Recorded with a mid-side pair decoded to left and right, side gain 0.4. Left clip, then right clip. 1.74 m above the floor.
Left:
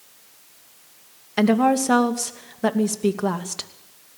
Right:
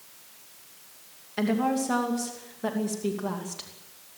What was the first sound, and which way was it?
A woman speaking, 65° left.